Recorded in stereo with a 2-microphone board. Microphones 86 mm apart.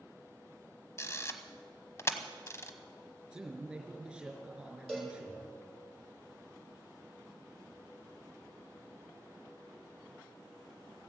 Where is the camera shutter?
35° left (ahead or behind), 1.0 m.